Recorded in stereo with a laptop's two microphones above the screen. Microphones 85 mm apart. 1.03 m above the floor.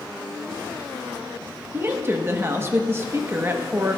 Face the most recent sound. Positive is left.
turn(degrees=-30)  # may be behind; listen again after turning